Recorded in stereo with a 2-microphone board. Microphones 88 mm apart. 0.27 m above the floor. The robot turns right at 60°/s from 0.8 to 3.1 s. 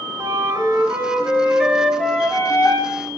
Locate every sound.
0.2 s a flute: 65° right, 1.1 m; by 3.1 s 70° left, 1.1 m